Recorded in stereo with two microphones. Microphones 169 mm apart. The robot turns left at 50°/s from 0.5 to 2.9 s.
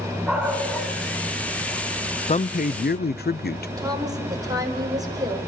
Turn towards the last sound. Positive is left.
turn(degrees=-20)  # may be behind; listen again after turning